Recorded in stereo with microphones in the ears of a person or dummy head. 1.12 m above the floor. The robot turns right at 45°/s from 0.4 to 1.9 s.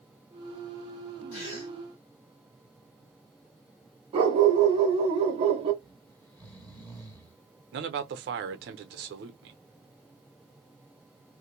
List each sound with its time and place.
1.3 s a gasp: 65° left (ahead or behind), 1.5 m; by 1.7 s 45° left (ahead or behind), 1.5 m
4.1 s a dog barking: 30° right (ahead or behind), 0.7 m
5.8 s snoring: 10° left (ahead or behind), 1.1 m
7.7 s a man speaking: 65° right (ahead or behind), 0.6 m